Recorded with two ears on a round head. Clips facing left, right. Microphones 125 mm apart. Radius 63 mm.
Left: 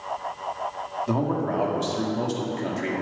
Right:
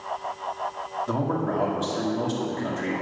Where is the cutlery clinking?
I don't hear cutlery clinking.